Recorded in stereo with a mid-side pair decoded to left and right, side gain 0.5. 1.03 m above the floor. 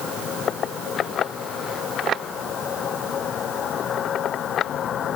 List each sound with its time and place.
Only background noise.